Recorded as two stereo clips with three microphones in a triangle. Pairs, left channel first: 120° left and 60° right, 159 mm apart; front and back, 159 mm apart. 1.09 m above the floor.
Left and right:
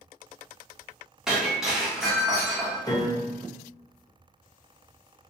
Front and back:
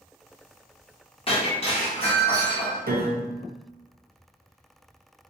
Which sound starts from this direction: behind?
A piano, at 2.9 s.